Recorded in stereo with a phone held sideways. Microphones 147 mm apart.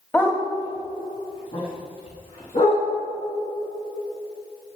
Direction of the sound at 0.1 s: 10° left (ahead or behind).